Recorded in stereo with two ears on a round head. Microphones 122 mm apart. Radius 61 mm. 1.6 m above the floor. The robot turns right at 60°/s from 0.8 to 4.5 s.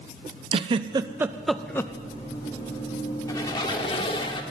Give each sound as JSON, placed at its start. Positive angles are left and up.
{"t": 0.5, "sound": "a giggle", "side_deg": -35, "distance_m": 0.5}
{"t": 3.3, "sound": "a squeak", "azimuth_deg": 45, "distance_m": 1.4}